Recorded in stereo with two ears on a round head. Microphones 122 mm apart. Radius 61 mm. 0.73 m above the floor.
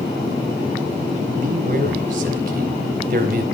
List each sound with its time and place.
1.4 s a man speaking: 65° right (ahead or behind), 4 m